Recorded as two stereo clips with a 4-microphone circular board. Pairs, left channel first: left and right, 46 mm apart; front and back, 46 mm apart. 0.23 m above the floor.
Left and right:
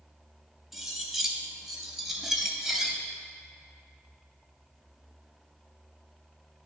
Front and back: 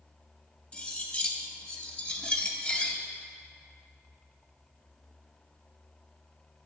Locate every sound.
0.7 s cutlery clinking: 15° right, 0.6 m